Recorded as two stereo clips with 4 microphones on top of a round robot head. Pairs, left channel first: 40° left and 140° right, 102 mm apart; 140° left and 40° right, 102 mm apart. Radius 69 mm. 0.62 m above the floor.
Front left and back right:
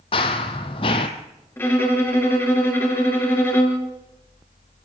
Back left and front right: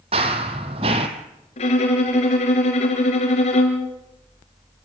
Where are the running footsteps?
Straight ahead, 1.6 m.